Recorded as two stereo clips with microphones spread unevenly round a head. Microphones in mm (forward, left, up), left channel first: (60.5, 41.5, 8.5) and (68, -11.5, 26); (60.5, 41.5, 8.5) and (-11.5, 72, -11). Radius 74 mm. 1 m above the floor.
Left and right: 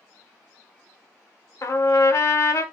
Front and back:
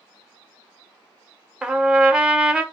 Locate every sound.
1.6 s a trumpet: 75° left, 0.8 m